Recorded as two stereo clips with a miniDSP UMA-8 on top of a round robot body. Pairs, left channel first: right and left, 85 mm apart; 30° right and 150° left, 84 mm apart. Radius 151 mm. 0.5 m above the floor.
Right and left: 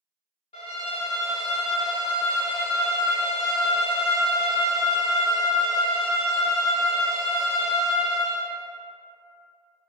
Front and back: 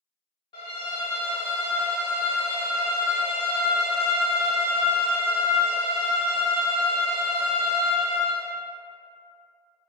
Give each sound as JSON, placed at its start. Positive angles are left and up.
{"t": 0.5, "sound": "a violin", "azimuth_deg": -75, "distance_m": 0.5}